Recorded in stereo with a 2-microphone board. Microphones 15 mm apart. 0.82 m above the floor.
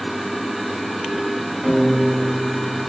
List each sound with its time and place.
1.6 s a piano: 30° left (ahead or behind), 2 m